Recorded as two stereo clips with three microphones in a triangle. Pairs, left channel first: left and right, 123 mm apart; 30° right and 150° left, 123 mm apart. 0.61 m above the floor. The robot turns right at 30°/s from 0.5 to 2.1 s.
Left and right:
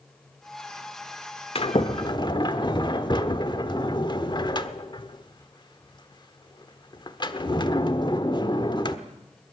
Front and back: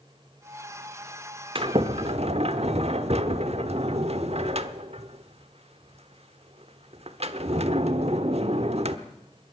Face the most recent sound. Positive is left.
turn(degrees=135)